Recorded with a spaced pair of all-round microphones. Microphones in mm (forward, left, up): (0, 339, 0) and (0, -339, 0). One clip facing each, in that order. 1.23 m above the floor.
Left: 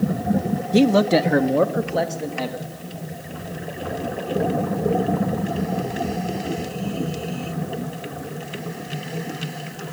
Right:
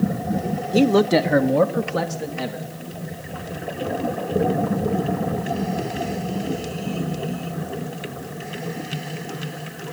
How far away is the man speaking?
About 0.8 m.